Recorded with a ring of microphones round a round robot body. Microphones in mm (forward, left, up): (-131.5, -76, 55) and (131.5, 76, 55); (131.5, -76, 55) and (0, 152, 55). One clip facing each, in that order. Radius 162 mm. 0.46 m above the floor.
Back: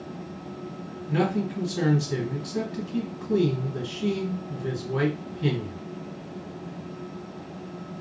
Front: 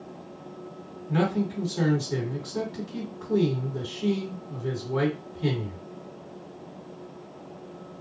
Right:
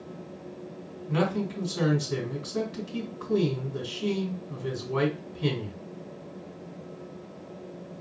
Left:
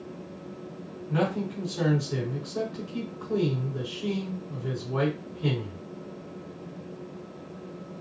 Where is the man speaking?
90° right, 2.5 m.